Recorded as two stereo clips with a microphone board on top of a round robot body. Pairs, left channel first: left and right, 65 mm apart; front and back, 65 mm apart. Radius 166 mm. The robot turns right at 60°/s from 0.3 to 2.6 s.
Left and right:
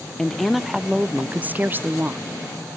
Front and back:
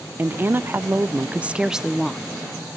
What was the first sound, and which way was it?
A woman speaking, 165° left.